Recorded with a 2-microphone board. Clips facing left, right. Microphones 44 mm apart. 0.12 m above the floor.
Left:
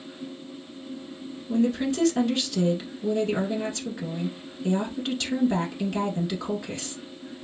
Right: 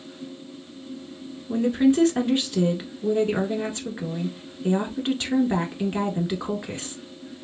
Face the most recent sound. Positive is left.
turn(degrees=-30)  # may be behind; listen again after turning